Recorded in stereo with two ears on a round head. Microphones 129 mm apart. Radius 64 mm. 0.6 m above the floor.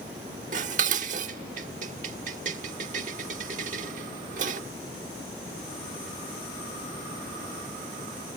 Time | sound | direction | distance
0.5 | dishes clattering | 55° right (ahead or behind) | ?